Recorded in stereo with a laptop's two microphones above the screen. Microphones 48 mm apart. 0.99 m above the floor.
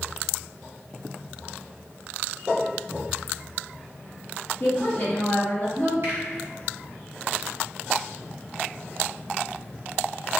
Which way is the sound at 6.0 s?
55° right (ahead or behind).